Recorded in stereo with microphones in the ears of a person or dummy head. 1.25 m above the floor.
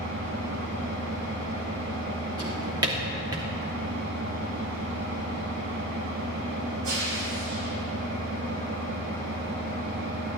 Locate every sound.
0.0 s an engine running: 65° right (ahead or behind), 1.6 m
2.4 s a drawer: 20° right (ahead or behind), 1.0 m